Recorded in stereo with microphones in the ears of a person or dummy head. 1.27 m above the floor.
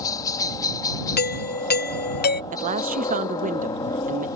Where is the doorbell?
45° left (ahead or behind).